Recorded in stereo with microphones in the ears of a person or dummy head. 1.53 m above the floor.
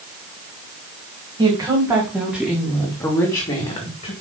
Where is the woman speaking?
15° right (ahead or behind), 2.5 m; by 4.1 s 40° left (ahead or behind), 2 m.